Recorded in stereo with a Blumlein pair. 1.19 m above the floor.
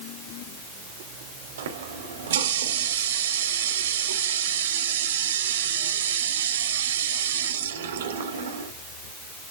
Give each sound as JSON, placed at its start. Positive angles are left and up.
{"t": 1.6, "sound": "a running tap", "azimuth_deg": -60, "distance_m": 2.5}